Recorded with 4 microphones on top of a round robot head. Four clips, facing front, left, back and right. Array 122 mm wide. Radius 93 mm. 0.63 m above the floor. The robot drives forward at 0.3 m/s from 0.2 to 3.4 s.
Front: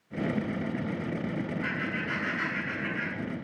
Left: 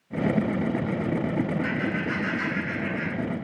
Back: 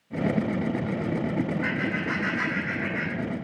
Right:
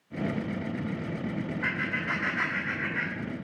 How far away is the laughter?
About 4.5 m.